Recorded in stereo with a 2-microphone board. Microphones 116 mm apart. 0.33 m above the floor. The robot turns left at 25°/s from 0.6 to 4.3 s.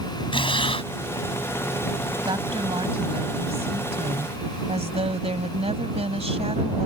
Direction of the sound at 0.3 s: 45° left (ahead or behind).